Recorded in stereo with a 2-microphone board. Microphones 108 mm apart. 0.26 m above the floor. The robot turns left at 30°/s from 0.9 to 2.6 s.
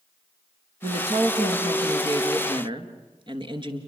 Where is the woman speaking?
80° right, 3.5 m; by 3.8 s 130° right, 3.5 m.